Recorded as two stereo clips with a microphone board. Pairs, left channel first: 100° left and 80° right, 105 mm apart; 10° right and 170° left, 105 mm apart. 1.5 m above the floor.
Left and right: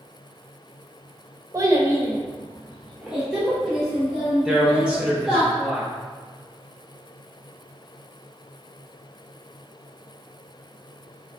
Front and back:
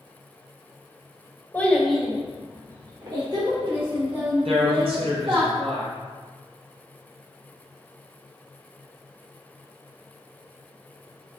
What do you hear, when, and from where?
1.5 s a child speaking: 65° right, 0.7 m; by 5.5 s 175° right, 2.0 m
4.5 s a man speaking: 160° right, 1.2 m